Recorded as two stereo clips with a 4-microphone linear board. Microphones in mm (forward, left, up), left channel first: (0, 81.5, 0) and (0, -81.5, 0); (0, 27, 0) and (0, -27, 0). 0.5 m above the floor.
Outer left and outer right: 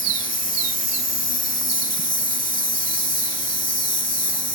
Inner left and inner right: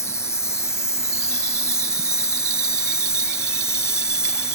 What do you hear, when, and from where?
0.0 s an insect: 65° left (ahead or behind)